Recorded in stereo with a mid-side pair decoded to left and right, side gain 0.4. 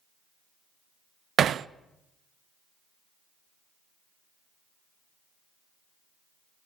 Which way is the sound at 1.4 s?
65° right.